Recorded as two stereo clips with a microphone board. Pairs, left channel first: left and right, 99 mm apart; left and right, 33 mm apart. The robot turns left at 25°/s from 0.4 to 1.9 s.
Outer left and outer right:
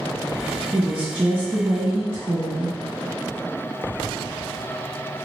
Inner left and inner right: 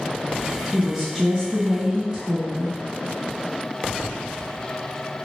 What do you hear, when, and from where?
0.7 s a woman speaking: 10° right (ahead or behind), 1.9 m; by 2.8 s 25° right (ahead or behind), 1.9 m